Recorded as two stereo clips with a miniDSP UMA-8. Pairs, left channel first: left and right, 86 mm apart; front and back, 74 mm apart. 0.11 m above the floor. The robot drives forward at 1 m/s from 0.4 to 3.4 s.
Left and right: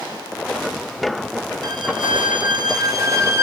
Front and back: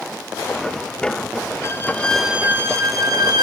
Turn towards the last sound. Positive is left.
turn(degrees=-150)